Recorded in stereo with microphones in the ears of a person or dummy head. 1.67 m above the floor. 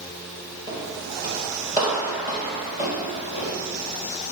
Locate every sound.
0.7 s footsteps: 20° left (ahead or behind), 2 m; by 3.5 s 25° left (ahead or behind), 3.5 m